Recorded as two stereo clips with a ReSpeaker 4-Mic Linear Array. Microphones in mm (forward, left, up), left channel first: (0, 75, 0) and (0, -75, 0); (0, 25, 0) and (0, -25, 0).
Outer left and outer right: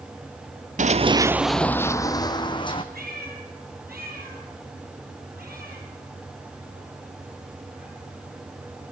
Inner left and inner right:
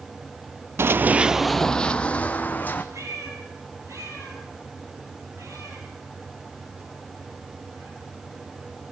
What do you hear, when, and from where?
0.8 s running footsteps: 55° right (ahead or behind), 0.5 m; by 2.8 s 35° left (ahead or behind), 1.5 m
2.9 s a cat meowing: 85° right, 6 m